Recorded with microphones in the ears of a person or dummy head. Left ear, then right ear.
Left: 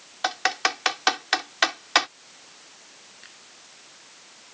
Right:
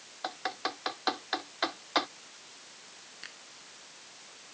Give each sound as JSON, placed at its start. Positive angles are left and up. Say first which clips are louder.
{"t": 0.2, "sound": "typing on a keyboard", "louder": "left 11 dB", "side_deg": 70}
{"t": 3.2, "sound": "a finger snap", "louder": "right 3 dB", "side_deg": -20}